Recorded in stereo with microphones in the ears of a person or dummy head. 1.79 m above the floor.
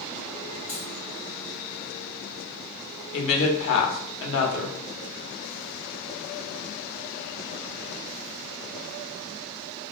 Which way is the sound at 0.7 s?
45° left (ahead or behind).